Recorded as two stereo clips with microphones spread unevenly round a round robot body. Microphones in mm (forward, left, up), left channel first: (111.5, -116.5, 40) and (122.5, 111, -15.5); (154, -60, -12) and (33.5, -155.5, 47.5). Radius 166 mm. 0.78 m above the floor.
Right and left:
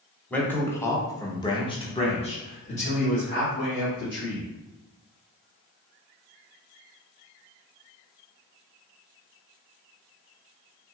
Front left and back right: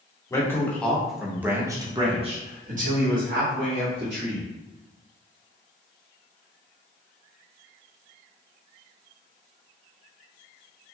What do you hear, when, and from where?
0.3 s a man speaking: 5° left, 1.3 m; by 4.5 s 160° right, 1.6 m